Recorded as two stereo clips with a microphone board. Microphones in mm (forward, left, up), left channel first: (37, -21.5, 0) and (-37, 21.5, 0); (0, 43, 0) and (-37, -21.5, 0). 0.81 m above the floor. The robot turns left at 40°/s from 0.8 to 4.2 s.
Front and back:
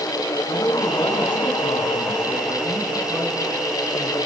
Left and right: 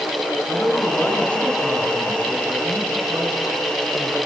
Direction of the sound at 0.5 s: 5° left.